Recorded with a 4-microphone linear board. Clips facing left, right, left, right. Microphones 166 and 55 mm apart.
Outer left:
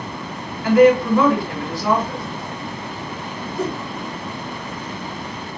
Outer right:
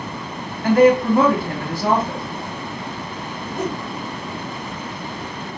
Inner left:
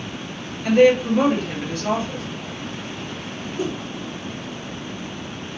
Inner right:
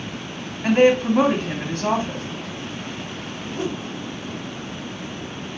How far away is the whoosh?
About 2 m.